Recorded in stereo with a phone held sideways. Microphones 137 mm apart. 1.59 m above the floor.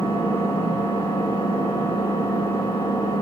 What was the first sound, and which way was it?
An engine running, 40° left (ahead or behind).